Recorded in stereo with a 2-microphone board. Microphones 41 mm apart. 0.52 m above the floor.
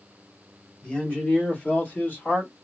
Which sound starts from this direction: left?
A man speaking, at 0.8 s.